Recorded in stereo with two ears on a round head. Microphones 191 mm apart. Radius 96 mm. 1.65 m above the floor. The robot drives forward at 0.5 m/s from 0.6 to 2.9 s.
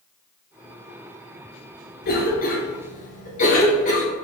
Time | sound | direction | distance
2.0 | a cough | 45° left (ahead or behind) | 1.4 m